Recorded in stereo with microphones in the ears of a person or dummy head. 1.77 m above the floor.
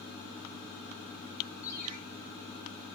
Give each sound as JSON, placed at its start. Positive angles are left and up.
{"t": 1.6, "sound": "a ringtone", "side_deg": 15, "distance_m": 5.0}